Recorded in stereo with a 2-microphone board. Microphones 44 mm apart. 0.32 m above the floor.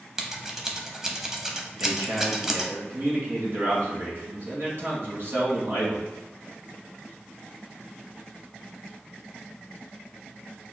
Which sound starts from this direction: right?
A man speaking, at 1.8 s.